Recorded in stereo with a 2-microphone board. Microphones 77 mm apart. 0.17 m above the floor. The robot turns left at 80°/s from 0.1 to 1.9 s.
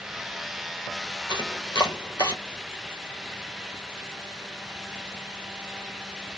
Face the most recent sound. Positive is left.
turn(degrees=60)  # may be behind; listen again after turning